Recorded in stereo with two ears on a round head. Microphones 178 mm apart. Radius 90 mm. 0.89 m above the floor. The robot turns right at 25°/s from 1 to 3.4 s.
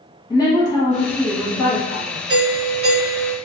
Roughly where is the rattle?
I don't hear a rattle.